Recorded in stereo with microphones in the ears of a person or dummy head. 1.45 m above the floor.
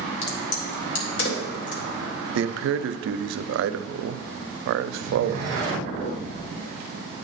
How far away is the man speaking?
About 0.5 m.